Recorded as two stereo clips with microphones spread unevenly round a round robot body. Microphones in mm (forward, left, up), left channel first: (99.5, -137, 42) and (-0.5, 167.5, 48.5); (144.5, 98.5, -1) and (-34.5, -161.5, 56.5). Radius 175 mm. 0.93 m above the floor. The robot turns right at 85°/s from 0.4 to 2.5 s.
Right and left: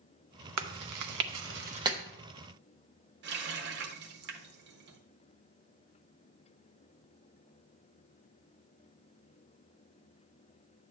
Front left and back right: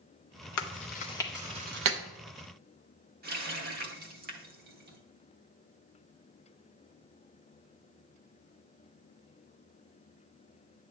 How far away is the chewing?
About 0.7 m.